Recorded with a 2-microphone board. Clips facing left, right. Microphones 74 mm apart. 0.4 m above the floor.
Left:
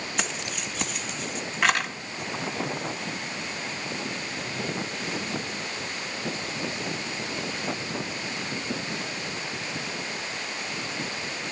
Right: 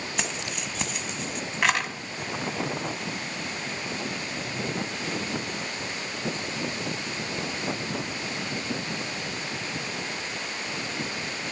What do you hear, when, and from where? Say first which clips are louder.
0.2 s keys jangling: left 1 dB; centre (ahead or behind), 1.8 m